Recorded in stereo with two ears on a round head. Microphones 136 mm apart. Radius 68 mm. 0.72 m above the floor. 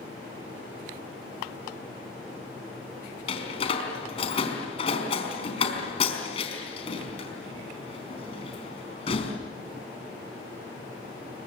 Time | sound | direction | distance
3.3 | a door slam | 40° left (ahead or behind) | 4.5 m